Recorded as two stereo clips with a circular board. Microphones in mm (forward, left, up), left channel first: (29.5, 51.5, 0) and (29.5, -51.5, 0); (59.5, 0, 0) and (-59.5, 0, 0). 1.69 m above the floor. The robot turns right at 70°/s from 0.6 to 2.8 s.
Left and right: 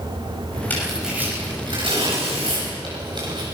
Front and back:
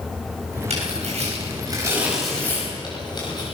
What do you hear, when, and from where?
0.7 s tearing paper: 160° left, 10 m; by 3.4 s 50° right, 10 m